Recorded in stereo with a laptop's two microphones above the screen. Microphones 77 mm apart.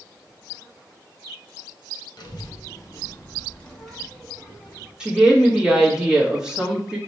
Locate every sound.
2.2 s a child speaking: 60° left (ahead or behind), 1.0 m; by 4.9 s 20° right (ahead or behind), 1.1 m
5.0 s a woman speaking: 10° right (ahead or behind), 0.9 m